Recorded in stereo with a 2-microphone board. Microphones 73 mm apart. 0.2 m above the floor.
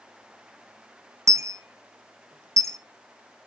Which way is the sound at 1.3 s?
50° right (ahead or behind).